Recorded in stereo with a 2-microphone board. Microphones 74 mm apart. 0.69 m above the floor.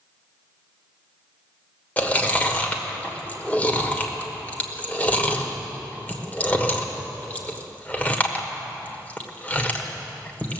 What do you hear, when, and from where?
2.0 s chewing: 20° left (ahead or behind), 1.4 m